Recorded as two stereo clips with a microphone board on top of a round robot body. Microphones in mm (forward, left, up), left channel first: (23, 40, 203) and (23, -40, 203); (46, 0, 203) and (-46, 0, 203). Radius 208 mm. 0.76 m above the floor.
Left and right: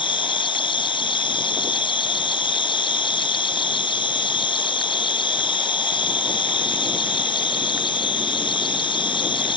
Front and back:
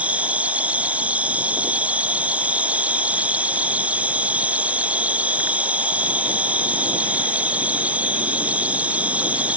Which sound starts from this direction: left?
An insect, at 0.0 s.